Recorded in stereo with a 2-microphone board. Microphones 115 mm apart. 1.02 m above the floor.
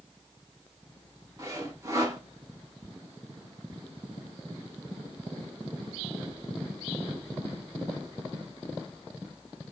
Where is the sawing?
30° right (ahead or behind), 1.0 m.